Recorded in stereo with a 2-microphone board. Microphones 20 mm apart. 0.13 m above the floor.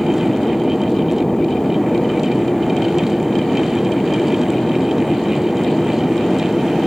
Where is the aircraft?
30° left (ahead or behind).